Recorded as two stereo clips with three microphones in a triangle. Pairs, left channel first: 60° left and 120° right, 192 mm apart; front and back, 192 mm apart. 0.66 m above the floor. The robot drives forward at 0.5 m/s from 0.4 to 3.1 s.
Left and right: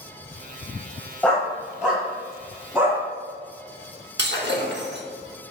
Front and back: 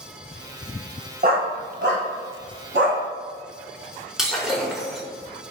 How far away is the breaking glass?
About 0.8 m.